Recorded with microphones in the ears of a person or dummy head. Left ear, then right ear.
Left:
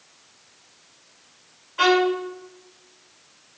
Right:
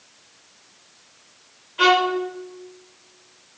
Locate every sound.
1.8 s a violin: 40° left (ahead or behind), 1.9 m